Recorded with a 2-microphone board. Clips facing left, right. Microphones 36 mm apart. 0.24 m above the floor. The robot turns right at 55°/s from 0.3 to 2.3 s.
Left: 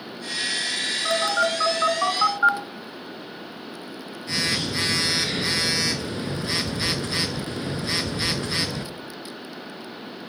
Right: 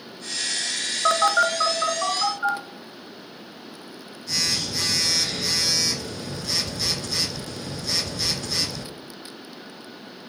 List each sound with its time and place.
1.1 s a phone buzzing: 40° right, 0.7 m; by 8.9 s 30° left, 0.7 m